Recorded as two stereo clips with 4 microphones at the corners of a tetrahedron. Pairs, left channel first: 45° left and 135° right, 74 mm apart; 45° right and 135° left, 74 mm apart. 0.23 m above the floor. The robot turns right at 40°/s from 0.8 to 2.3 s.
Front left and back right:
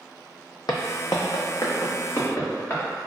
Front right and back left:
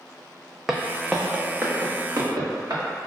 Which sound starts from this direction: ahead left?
Footsteps, at 0.7 s.